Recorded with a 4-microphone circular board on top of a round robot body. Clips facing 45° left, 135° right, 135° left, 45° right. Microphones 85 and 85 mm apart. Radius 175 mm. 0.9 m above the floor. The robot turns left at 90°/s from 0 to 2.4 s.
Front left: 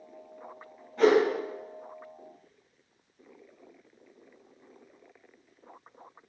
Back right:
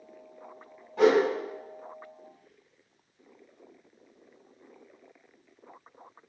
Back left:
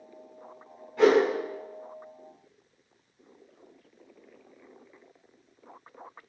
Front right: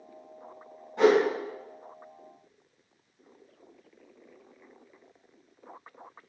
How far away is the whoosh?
About 0.9 m.